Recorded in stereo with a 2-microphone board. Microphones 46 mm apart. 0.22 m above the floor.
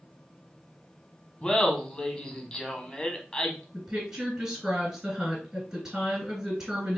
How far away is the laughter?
About 1.2 m.